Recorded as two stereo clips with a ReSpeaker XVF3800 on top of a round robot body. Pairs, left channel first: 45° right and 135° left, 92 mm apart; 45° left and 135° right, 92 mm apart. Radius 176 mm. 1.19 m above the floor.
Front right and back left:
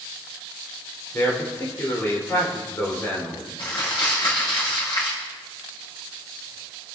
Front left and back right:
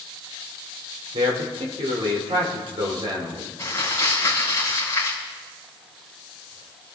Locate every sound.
1.1 s a man speaking: 110° right, 4.5 m
3.6 s crumpling: 15° right, 6 m